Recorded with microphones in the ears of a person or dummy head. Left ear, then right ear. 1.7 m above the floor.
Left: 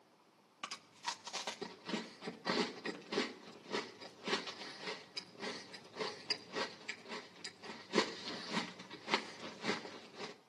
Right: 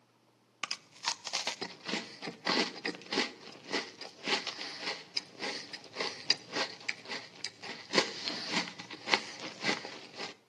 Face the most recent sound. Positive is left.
turn(degrees=-35)  # may be behind; listen again after turning